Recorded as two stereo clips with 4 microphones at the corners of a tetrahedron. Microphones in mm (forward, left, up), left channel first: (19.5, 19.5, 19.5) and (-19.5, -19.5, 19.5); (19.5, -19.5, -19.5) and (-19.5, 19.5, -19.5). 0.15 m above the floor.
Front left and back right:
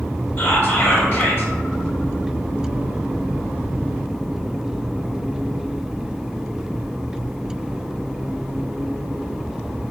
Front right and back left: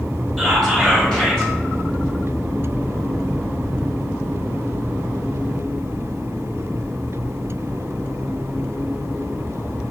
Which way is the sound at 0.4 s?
25° left.